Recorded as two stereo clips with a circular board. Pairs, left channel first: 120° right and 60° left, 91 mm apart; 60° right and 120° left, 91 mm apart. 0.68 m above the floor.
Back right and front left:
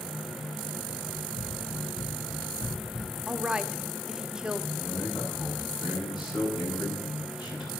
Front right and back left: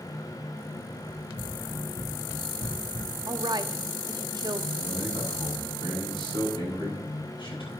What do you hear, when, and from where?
1.1 s running footsteps: 100° right, 4.5 m; by 3.1 s 60° right, 3 m
3.3 s a woman speaking: 140° left, 0.8 m
4.7 s a man speaking: 85° right, 6.5 m